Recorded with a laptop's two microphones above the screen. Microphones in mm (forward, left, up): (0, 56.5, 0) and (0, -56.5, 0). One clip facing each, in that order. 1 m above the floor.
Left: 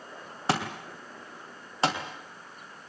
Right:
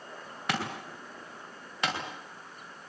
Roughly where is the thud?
Left.